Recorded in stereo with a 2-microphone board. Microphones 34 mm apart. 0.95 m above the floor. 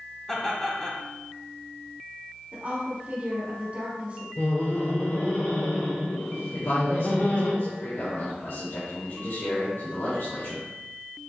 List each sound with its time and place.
0.3 s laughter: 10° left (ahead or behind), 2.0 m
2.5 s a woman speaking: 40° right (ahead or behind), 3 m
4.4 s laughter: 60° left (ahead or behind), 3 m
6.5 s a man speaking: 70° left (ahead or behind), 2.5 m